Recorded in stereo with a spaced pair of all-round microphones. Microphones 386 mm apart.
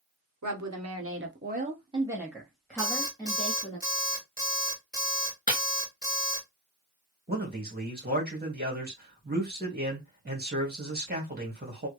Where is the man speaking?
25° right (ahead or behind), 1.8 m.